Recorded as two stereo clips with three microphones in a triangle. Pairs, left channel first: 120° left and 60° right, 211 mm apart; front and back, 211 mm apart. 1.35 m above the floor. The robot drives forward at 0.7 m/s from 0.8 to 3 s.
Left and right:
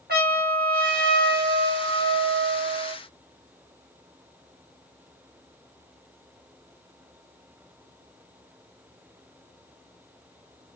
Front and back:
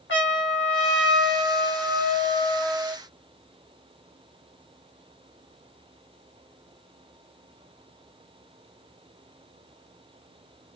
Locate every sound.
0.1 s a trumpet: 20° right, 1.4 m; by 3.0 s 115° right, 0.5 m